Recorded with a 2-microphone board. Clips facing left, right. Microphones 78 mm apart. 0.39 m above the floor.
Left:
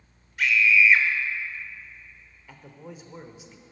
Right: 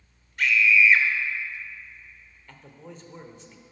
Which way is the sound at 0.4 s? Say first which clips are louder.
Even; centre (ahead or behind).